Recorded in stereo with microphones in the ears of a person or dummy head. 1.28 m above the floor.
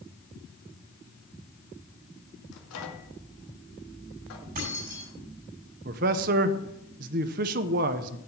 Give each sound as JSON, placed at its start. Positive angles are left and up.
{"t": 2.5, "sound": "a microwave", "side_deg": 60, "distance_m": 2.0}
{"t": 4.5, "sound": "keys jangling", "side_deg": -40, "distance_m": 5.5}
{"t": 5.8, "sound": "a man speaking", "side_deg": -40, "distance_m": 0.8}